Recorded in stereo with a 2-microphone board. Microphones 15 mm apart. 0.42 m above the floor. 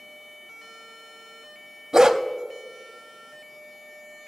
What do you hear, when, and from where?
1.9 s a dog barking: 45° right (ahead or behind), 0.6 m